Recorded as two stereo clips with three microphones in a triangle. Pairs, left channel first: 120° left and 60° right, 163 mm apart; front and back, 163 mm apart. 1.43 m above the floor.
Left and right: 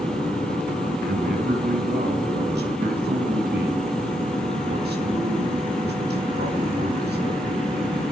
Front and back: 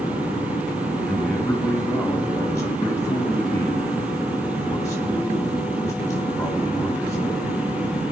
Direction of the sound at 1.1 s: 75° right.